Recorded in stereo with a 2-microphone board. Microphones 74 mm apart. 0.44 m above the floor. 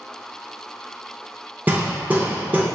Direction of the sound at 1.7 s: 25° right (ahead or behind).